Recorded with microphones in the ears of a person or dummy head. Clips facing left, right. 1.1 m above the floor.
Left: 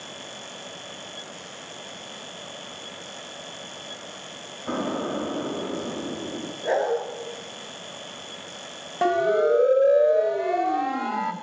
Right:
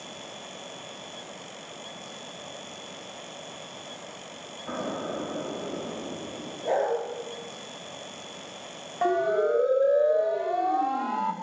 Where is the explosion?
50° left (ahead or behind), 4 m.